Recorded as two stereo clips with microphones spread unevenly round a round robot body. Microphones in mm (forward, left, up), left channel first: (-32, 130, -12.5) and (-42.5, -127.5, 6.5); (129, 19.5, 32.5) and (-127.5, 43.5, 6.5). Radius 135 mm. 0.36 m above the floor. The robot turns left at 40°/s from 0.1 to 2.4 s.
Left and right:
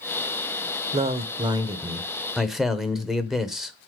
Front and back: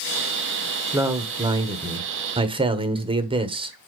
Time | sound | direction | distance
0.9 | a man speaking | 130° right | 1.0 m